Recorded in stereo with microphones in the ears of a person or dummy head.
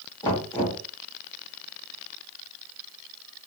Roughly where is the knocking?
Left.